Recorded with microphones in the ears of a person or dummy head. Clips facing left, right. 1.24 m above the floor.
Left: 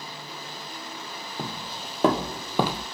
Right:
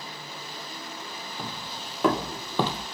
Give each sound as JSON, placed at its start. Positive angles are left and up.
{"t": 1.4, "sound": "footsteps", "side_deg": 35, "distance_m": 2.0}